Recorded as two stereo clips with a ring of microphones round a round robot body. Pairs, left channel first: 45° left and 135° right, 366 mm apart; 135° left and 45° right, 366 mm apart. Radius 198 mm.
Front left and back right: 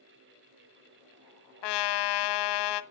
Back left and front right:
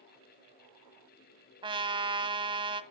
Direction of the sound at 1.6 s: 35° left.